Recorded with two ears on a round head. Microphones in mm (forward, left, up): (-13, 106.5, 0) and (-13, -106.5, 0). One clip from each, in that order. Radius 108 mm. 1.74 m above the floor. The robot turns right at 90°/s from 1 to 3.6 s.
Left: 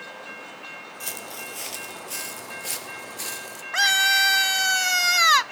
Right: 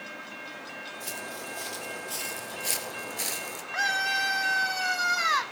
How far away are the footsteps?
About 2.5 m.